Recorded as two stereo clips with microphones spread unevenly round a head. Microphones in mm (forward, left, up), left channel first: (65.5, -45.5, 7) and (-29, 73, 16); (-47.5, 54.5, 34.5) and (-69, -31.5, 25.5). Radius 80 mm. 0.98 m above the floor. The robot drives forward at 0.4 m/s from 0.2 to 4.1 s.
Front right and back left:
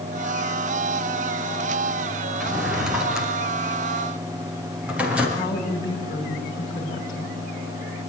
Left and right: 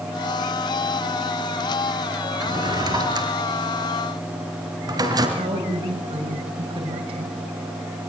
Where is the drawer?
145° right, 4.5 m; by 5.3 s 150° right, 5.5 m.